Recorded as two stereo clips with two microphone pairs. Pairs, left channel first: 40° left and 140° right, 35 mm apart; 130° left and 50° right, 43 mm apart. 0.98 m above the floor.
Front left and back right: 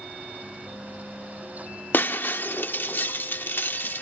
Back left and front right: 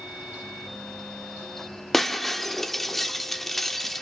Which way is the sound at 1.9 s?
45° left.